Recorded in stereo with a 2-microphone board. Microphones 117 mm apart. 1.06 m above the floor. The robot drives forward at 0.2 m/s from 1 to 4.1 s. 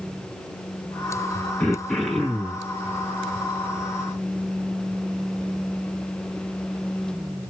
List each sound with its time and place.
1.6 s throat clearing: 10° left (ahead or behind), 1.5 m